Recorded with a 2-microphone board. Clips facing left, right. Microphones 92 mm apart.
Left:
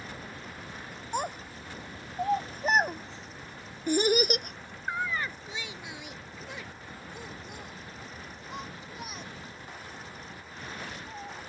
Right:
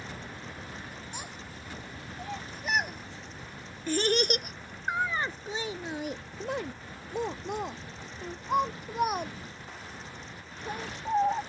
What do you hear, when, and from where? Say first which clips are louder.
1.1 s a child speaking: left 9 dB; 50° left (ahead or behind); by 11.4 s 55° right (ahead or behind)